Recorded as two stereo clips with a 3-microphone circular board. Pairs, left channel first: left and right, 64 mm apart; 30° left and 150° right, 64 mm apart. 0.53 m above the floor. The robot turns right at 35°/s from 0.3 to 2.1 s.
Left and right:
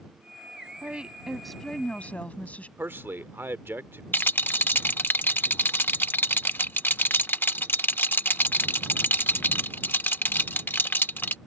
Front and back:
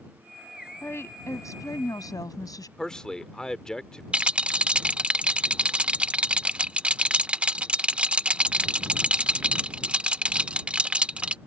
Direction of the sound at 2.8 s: 45° right.